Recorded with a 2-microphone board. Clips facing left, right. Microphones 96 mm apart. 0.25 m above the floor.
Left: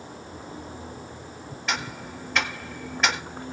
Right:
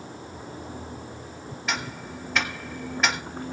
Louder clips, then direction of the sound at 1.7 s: Left 1 dB; centre (ahead or behind).